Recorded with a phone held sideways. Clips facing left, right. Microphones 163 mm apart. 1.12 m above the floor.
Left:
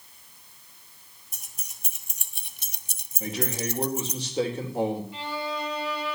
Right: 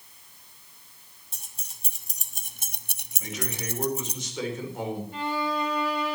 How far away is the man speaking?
About 4.5 m.